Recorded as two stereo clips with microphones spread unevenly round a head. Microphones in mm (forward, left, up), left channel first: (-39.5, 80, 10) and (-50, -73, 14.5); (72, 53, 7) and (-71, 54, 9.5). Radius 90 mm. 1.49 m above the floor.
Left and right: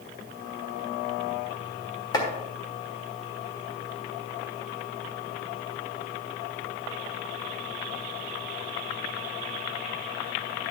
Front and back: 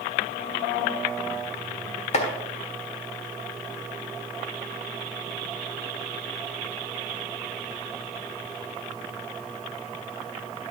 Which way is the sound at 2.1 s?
20° left.